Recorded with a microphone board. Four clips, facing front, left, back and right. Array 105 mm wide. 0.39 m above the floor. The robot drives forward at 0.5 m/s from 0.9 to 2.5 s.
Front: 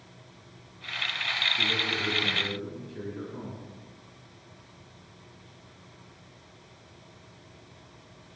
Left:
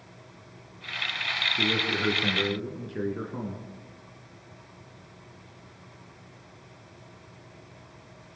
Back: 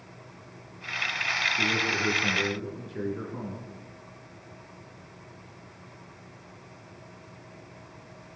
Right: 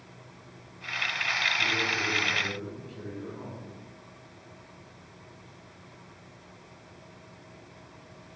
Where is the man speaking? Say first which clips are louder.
Left 2 dB, back 4 dB; 105° left, 6 m; by 3.6 s 110° left, 6 m.